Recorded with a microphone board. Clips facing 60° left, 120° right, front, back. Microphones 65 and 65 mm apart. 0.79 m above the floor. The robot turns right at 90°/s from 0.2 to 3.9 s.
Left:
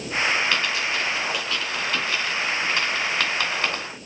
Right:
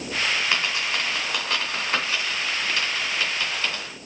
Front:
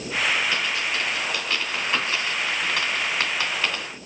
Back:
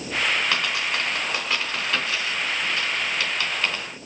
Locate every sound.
0.5 s a dropped coin: 160° left, 2.0 m; by 3.9 s 105° left, 2.0 m